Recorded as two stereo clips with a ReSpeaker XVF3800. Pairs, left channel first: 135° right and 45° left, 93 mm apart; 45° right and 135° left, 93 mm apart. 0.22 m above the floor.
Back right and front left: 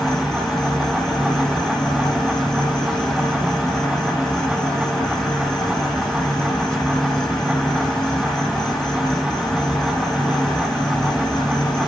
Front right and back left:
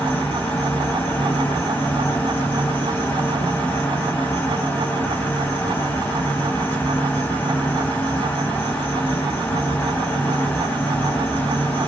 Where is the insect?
65° right, 0.7 m.